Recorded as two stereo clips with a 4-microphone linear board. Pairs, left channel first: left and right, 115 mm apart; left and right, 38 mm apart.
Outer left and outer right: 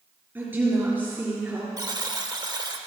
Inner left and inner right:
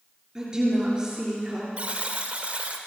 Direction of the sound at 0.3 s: 15° right (ahead or behind).